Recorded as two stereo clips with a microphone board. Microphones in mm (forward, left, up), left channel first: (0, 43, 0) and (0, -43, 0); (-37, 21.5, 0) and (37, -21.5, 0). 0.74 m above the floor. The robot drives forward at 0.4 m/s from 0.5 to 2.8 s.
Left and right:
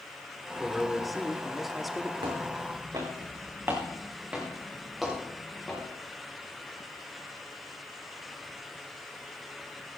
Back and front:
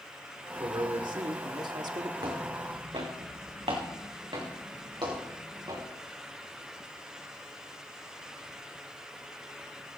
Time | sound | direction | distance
0.6 | a man speaking | straight ahead | 1.6 m
2.2 | footsteps | 65° right | 3 m